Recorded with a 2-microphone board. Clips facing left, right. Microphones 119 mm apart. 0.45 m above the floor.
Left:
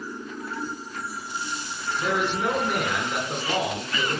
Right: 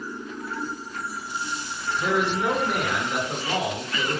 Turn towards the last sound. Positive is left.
turn(degrees=-5)  # may be behind; listen again after turning